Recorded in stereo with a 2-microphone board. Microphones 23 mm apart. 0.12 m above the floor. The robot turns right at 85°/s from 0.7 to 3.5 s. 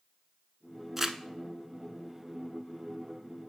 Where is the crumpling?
10° right (ahead or behind), 0.5 m; by 1.2 s 20° right (ahead or behind), 0.5 m.